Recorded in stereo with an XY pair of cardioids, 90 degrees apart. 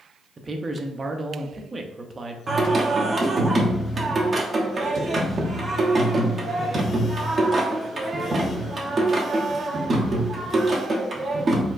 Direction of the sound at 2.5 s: 40° right.